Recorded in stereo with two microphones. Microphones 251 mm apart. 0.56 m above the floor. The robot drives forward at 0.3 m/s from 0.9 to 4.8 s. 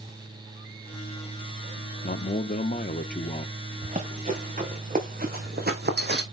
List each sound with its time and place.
2.0 s a man speaking: 35° left (ahead or behind), 0.7 m; by 3.5 s 30° left (ahead or behind), 0.8 m
3.8 s running footsteps: 30° right (ahead or behind), 3 m; by 6.2 s 45° right (ahead or behind), 1.7 m